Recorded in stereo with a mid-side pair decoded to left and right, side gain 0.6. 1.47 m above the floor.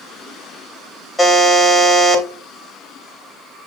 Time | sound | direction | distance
1.2 | a buzzer | 15° left | 3 m